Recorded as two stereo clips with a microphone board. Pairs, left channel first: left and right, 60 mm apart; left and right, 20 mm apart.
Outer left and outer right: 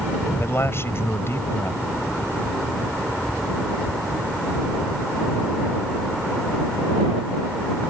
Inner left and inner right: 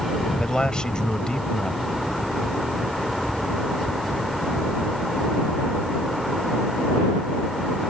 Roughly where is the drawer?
I don't hear a drawer.